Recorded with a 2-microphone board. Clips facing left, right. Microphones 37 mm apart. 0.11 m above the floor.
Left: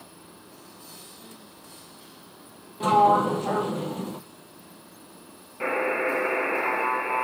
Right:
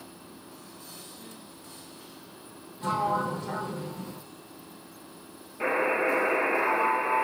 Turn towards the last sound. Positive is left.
turn(degrees=5)  # may be behind; listen again after turning